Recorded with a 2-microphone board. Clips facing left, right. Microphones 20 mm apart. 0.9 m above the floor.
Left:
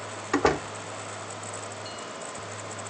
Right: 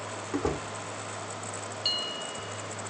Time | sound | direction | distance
0.3 | a door slam | 70° left (ahead or behind) | ?
1.9 | a bell | 50° right (ahead or behind) | ?